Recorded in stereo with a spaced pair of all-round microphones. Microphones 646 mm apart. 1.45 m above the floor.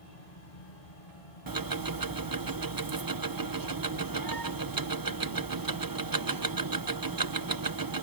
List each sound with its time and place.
0.0 s a fan: 70° left (ahead or behind)
1.5 s ticking: 30° right (ahead or behind)